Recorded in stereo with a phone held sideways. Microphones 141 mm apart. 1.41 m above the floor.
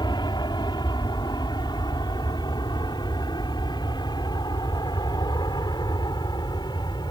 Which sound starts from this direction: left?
An aircraft, at 0.0 s.